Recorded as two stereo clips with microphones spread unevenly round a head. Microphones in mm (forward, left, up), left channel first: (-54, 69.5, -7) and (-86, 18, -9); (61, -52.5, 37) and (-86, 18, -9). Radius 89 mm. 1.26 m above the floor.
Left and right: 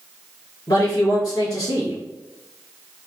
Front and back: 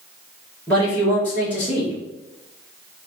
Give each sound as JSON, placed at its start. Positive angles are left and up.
{"t": 0.7, "sound": "a man speaking", "azimuth_deg": 55, "distance_m": 1.4}